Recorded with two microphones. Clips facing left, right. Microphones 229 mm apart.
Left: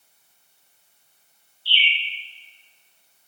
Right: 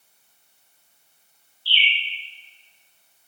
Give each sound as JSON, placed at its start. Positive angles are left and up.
{"t": 1.6, "sound": "a bird", "side_deg": -15, "distance_m": 1.5}